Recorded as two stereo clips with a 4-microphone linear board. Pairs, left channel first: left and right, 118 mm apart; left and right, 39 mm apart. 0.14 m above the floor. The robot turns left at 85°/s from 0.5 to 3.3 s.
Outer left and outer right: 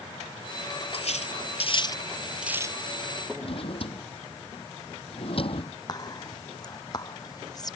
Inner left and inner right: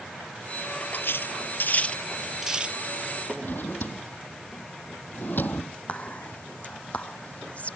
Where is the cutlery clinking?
55° left (ahead or behind); by 2.8 s 35° right (ahead or behind).